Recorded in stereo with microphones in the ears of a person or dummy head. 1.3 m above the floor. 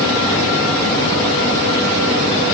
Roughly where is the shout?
No shout in this recording.